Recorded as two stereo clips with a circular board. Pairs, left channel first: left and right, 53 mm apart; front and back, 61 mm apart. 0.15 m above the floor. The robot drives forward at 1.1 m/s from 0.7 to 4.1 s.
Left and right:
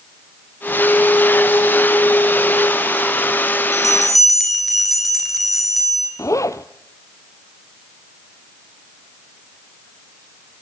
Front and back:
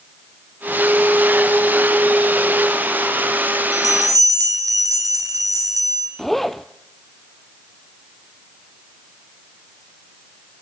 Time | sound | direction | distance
3.7 | a bell | straight behind | 3.5 m
6.2 | a zipper | 85° left | 0.9 m